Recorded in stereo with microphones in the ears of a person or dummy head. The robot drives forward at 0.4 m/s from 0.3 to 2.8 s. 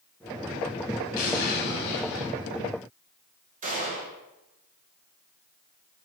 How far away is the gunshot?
About 0.9 m.